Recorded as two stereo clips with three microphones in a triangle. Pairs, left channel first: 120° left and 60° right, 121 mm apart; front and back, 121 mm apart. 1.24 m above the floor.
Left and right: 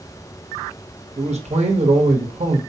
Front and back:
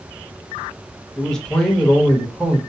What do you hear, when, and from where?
1.2 s a man speaking: 85° right, 1.0 m